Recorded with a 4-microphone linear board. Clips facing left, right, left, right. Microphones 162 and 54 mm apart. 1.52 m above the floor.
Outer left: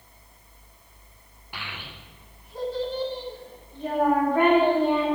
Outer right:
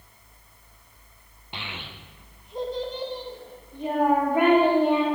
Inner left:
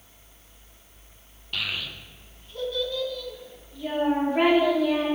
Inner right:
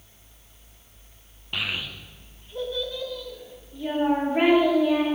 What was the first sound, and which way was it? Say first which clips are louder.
A child speaking: outer right 1 dB, inner right 1 dB; 25° right (ahead or behind).